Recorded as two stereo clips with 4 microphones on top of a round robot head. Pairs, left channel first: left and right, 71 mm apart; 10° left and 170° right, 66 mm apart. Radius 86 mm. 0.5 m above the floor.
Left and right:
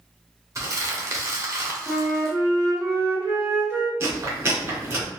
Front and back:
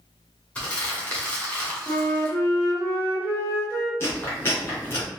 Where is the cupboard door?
No cupboard door in this recording.